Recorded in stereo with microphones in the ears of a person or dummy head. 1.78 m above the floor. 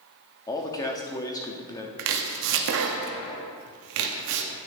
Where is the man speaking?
15° left (ahead or behind), 0.6 m.